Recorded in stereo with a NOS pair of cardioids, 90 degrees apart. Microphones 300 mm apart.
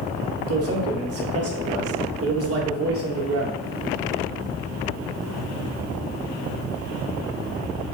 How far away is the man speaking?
About 0.9 m.